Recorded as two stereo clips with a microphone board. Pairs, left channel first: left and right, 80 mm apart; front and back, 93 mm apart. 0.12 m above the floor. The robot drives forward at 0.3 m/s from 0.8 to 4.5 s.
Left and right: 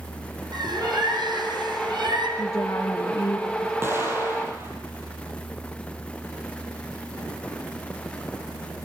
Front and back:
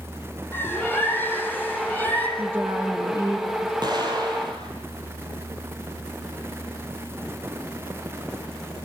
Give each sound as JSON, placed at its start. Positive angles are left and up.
{"t": 0.5, "sound": "a bird", "azimuth_deg": -65, "distance_m": 4.5}
{"t": 2.4, "sound": "a woman speaking", "azimuth_deg": 125, "distance_m": 2.0}
{"t": 3.8, "sound": "an explosion", "azimuth_deg": -145, "distance_m": 4.5}